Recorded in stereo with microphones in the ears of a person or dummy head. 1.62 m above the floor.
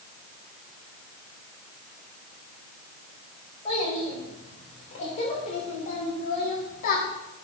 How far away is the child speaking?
About 4.5 m.